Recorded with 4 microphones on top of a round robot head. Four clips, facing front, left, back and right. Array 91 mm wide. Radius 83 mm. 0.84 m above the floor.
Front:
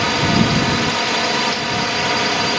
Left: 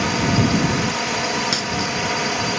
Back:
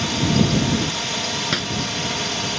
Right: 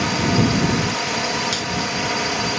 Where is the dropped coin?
160° left.